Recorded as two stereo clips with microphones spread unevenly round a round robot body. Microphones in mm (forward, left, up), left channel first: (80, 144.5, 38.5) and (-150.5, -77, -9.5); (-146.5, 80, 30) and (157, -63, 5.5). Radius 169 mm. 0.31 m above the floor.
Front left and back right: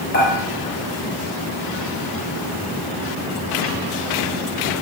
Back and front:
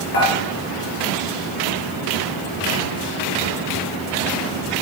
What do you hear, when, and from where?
0.1 s dishes clattering: 100° left, 4 m